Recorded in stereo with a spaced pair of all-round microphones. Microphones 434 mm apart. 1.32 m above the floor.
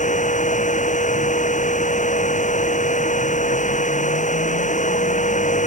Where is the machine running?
15° left (ahead or behind).